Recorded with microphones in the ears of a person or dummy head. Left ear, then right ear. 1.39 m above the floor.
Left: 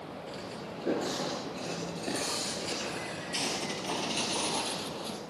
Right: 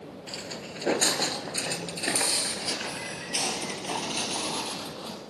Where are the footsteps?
30° right (ahead or behind), 1.6 m; by 5.2 s centre (ahead or behind), 2.5 m.